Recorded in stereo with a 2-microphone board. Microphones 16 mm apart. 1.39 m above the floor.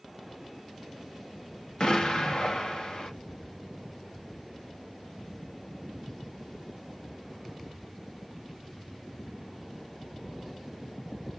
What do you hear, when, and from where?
1.8 s an explosion: 55° left (ahead or behind), 0.7 m